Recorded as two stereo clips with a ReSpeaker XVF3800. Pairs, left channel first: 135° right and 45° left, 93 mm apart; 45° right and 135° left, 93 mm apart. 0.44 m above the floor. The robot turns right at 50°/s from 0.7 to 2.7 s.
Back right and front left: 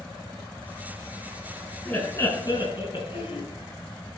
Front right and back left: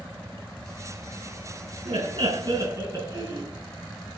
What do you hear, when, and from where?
1.9 s laughter: 145° left, 6 m; by 3.5 s 175° right, 6 m